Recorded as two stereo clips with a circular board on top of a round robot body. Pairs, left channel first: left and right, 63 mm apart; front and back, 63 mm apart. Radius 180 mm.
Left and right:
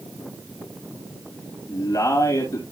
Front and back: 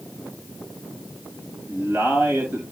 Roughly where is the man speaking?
Behind left.